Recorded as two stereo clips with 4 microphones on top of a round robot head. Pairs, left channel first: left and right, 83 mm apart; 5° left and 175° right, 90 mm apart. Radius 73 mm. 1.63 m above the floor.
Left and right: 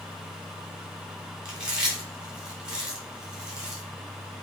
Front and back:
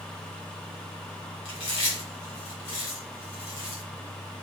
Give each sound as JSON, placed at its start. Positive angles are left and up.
{"t": 1.4, "sound": "chewing", "azimuth_deg": -10, "distance_m": 3.0}